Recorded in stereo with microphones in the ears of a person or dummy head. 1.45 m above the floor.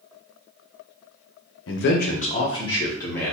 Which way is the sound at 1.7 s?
65° left (ahead or behind).